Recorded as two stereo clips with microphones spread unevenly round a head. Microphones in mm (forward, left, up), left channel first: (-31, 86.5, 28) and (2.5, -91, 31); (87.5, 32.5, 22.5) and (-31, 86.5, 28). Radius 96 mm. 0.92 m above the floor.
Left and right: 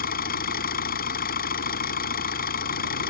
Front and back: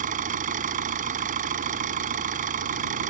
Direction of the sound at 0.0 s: 140° left.